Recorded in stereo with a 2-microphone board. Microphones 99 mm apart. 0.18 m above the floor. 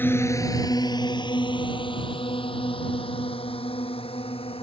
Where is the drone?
20° left (ahead or behind); by 4.6 s 75° left (ahead or behind).